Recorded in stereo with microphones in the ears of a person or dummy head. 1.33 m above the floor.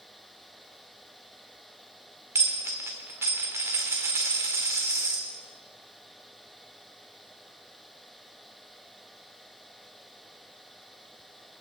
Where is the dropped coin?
10° right (ahead or behind), 1.5 m.